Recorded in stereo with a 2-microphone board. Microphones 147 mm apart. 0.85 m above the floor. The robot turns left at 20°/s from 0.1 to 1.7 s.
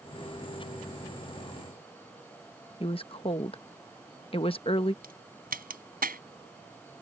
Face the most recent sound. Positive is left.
turn(degrees=-80)